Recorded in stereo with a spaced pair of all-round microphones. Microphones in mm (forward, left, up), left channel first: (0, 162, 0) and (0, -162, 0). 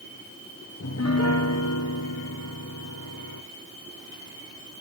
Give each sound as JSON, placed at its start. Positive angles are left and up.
{"t": 0.8, "sound": "a piano", "side_deg": 50, "distance_m": 1.1}